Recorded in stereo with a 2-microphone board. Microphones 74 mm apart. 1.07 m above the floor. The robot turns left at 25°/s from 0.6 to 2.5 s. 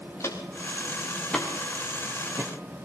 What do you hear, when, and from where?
0.2 s footsteps: 35° left (ahead or behind), 5 m; by 2.5 s 40° right (ahead or behind), 4.5 m